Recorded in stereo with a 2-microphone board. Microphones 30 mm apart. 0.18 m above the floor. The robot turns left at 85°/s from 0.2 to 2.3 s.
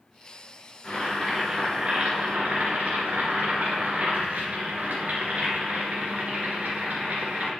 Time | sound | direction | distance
0.8 | boiling | 40° left | 2.5 m